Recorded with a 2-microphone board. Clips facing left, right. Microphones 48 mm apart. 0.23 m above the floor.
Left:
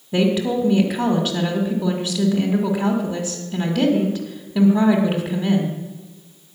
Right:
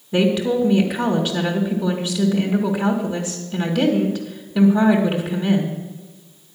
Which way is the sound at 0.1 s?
10° left (ahead or behind).